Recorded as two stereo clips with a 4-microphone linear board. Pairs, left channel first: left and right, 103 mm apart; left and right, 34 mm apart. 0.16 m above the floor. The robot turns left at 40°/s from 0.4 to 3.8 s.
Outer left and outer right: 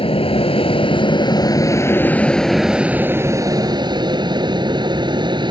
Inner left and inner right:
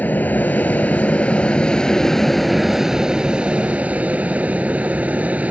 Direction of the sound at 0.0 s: 65° left (ahead or behind).